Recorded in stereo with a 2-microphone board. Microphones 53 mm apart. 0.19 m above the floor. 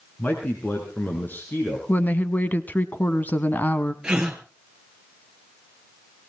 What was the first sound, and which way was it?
A man speaking, 35° left (ahead or behind).